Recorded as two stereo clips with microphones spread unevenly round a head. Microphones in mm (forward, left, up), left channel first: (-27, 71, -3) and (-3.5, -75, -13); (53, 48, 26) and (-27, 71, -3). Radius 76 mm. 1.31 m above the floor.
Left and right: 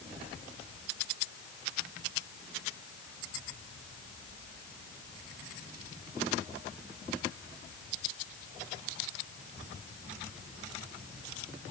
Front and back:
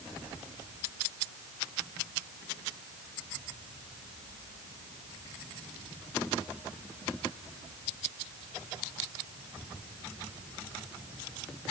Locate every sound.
Only background noise.